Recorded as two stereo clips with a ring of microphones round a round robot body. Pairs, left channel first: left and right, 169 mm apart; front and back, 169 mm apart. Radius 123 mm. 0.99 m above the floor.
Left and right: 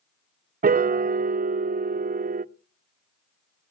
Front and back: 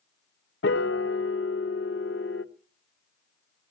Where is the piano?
50° right, 0.6 m.